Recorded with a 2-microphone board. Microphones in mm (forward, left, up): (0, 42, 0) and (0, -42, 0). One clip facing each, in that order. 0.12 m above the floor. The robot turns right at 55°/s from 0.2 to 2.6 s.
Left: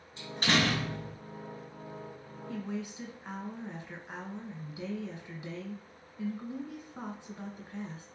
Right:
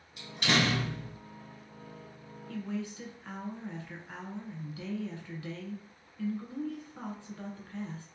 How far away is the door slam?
About 1.4 m.